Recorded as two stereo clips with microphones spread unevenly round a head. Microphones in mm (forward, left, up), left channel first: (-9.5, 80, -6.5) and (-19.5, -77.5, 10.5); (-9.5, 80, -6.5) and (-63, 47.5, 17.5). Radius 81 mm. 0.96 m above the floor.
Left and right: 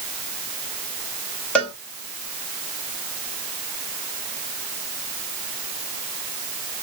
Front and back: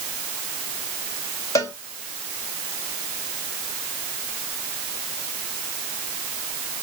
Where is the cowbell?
5° left, 1.3 m.